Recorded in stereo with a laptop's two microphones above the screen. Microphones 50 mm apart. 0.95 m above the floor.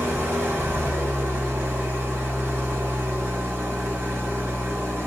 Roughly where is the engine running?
Right.